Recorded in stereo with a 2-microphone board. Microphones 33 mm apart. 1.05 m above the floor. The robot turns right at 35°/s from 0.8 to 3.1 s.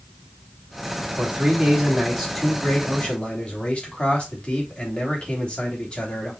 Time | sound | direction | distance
1.2 | a man speaking | 35° right | 3 m